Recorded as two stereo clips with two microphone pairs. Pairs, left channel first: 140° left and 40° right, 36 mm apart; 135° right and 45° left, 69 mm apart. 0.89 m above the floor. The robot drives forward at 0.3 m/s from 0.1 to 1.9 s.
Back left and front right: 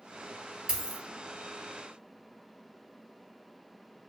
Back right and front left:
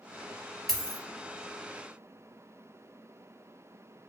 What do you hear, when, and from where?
0.7 s a dropped coin: 55° right, 0.9 m; by 1.0 s 65° right, 0.9 m